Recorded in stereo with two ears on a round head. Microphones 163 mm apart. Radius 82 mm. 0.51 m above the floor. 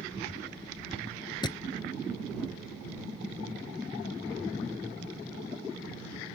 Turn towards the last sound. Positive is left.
turn(degrees=25)  # may be behind; listen again after turning